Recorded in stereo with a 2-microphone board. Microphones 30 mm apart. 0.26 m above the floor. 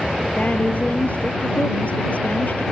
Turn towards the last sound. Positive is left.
turn(degrees=60)  # may be behind; listen again after turning